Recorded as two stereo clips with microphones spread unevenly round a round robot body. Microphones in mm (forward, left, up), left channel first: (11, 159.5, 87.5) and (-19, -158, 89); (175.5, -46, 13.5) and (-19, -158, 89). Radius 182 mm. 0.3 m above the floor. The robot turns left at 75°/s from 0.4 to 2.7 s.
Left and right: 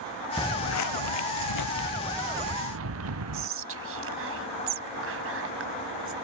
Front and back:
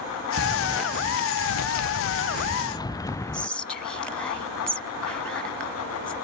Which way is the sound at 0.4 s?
165° left.